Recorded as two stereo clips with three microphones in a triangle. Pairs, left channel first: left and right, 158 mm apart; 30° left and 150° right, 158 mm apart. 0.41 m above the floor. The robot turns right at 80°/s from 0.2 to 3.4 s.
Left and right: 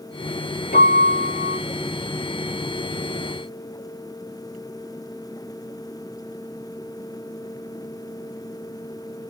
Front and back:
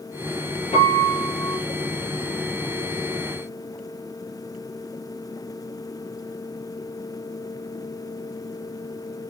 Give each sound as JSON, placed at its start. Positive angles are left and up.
{"t": 0.7, "sound": "a piano", "azimuth_deg": 75, "distance_m": 5.5}